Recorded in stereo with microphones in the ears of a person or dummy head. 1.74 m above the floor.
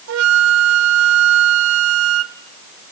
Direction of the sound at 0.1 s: 80° right.